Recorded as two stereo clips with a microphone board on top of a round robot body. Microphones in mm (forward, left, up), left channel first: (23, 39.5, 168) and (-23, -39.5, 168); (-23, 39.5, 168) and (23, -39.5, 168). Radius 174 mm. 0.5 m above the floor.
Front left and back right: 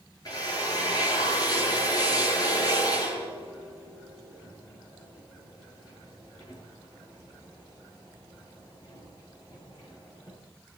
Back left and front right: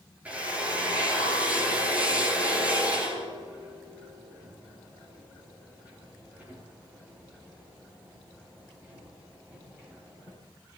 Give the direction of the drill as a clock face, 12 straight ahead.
12 o'clock.